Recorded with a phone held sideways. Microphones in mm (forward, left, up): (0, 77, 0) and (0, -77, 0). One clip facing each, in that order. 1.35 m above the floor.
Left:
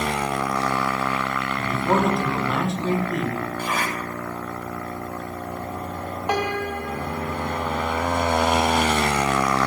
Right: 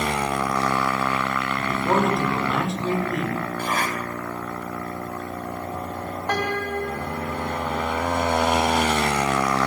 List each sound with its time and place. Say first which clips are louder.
1.6 s a man speaking: left 1 dB; centre (ahead or behind), 6 m
3.6 s a zipper: right 1 dB; 45° right (ahead or behind), 10 m
6.3 s a piano: left 1 dB; 10° left (ahead or behind), 1.3 m